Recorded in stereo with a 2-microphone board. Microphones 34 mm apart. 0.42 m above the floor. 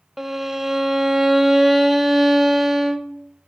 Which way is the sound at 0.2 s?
10° right (ahead or behind).